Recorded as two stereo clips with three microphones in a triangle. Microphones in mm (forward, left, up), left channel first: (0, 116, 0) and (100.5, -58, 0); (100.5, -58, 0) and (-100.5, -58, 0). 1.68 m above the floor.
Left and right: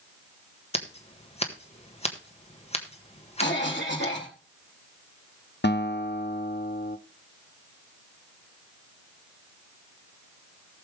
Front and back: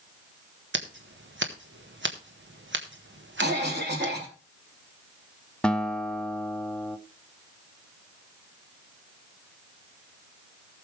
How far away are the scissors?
About 1.5 m.